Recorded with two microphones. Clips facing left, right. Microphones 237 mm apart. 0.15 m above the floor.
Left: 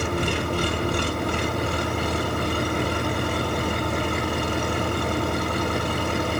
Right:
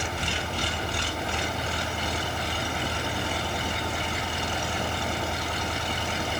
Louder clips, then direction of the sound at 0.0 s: Left 8 dB; 60° left (ahead or behind).